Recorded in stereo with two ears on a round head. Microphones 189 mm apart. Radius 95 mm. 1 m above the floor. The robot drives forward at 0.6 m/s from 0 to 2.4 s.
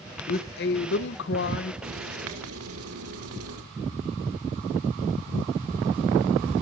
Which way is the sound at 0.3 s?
45° left (ahead or behind).